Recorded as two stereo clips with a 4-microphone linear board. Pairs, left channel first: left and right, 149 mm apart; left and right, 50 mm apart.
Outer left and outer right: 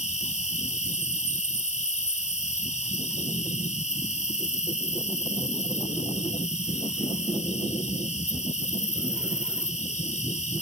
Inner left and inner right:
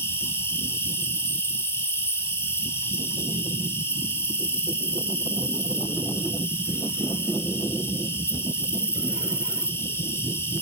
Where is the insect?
55° left (ahead or behind), 1.3 m.